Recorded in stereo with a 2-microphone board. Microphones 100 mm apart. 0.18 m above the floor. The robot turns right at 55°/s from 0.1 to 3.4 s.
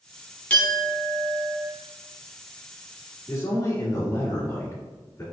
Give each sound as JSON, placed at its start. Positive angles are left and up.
{"t": 0.5, "sound": "a clink", "azimuth_deg": 160, "distance_m": 1.2}
{"t": 3.3, "sound": "a man speaking", "side_deg": 25, "distance_m": 2.0}